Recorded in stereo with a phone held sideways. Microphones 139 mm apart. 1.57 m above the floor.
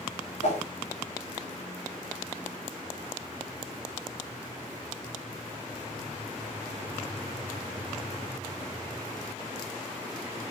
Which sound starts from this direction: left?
A whoosh, at 0.4 s.